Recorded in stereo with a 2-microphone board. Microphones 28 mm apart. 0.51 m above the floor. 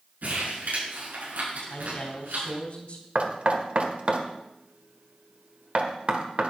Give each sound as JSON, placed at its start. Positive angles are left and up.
{"t": 0.2, "sound": "crumpling", "side_deg": -75, "distance_m": 6.0}
{"t": 1.6, "sound": "a man speaking", "side_deg": 50, "distance_m": 3.5}
{"t": 3.1, "sound": "knocking", "side_deg": -45, "distance_m": 1.5}